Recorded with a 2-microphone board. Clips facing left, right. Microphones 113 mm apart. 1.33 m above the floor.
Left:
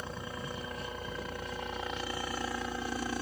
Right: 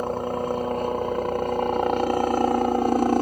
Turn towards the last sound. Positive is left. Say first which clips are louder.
# right 15 dB
turn(degrees=-60)  # may be behind; listen again after turning